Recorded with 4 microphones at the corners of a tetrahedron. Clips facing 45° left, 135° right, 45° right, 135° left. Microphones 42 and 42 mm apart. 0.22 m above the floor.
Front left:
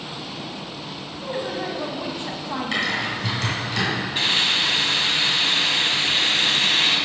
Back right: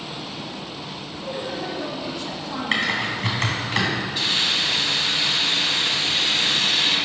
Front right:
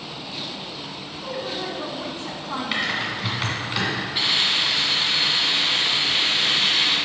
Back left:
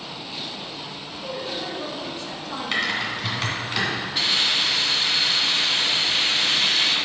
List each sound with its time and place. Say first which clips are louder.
1.2 s a woman speaking: front left 2 dB, front right 1 dB; 5° right, 1.3 m
2.7 s typing on a keyboard: back right 2 dB, back left 2 dB; 125° right, 2 m
4.2 s a hiss: front left 4 dB, even; 20° left, 1.5 m